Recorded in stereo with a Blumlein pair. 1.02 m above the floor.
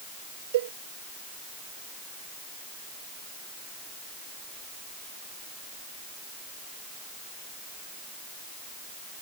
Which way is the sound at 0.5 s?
55° right.